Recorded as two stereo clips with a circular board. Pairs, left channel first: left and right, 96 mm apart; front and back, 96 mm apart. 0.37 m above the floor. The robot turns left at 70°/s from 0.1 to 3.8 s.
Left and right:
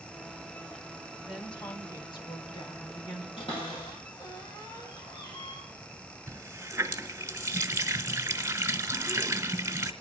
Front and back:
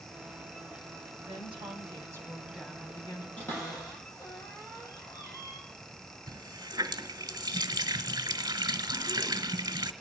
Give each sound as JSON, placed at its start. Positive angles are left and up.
{"t": 1.3, "sound": "a woman speaking", "azimuth_deg": -175, "distance_m": 2.5}
{"t": 3.4, "sound": "a cupboard door", "azimuth_deg": 75, "distance_m": 6.5}
{"t": 6.3, "sound": "a running tap", "azimuth_deg": -145, "distance_m": 1.3}